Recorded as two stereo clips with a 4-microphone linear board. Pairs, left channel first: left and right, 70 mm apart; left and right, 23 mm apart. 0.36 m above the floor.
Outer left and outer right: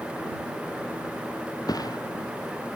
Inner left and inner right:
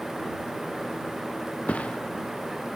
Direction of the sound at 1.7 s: 65° left (ahead or behind).